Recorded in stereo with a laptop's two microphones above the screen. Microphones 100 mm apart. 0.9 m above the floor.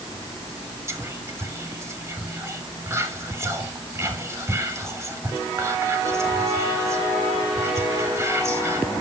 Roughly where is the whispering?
Right.